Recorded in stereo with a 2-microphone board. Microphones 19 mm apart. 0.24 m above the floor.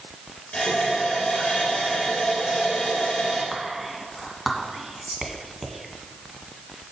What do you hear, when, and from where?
0.5 s a running tap: 40° left (ahead or behind), 3.5 m
3.5 s whispering: 10° right (ahead or behind), 1.7 m